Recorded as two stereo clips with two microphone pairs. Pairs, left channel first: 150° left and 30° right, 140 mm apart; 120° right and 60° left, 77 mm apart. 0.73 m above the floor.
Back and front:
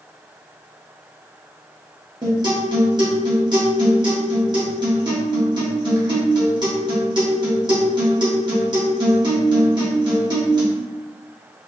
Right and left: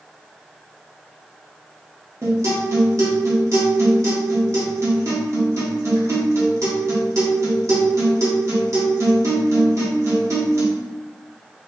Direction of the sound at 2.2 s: 20° left.